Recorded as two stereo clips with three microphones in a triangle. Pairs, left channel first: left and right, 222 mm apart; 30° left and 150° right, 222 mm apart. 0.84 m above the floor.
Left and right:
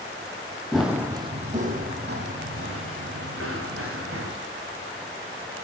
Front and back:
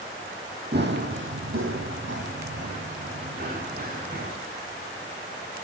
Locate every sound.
0.7 s running footsteps: straight behind, 1.8 m; by 4.3 s 100° right, 4.5 m